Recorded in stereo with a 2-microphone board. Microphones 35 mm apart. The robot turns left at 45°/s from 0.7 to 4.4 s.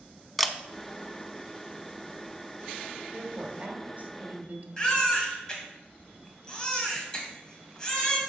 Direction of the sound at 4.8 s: 20° left (ahead or behind).